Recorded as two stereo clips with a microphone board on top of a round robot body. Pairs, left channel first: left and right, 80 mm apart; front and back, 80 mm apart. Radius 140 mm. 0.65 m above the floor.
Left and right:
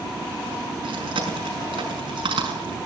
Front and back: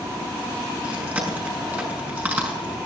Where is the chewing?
110° right, 5.5 m.